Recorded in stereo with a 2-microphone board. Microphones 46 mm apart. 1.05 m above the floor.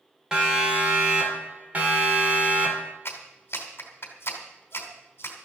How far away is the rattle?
I don't hear a rattle.